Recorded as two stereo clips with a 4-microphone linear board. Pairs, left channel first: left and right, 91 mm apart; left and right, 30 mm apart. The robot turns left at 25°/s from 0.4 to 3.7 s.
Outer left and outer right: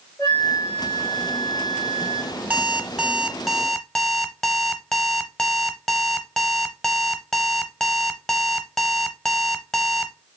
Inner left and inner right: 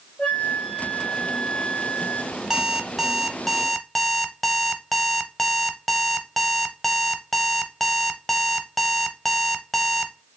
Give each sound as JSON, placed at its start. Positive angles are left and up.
{"t": 0.2, "sound": "a flute", "azimuth_deg": 140, "distance_m": 3.0}
{"t": 2.5, "sound": "an alarm clock", "azimuth_deg": -160, "distance_m": 0.7}